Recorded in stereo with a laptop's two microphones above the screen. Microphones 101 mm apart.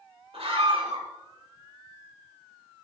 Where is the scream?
70° right (ahead or behind), 3.5 m.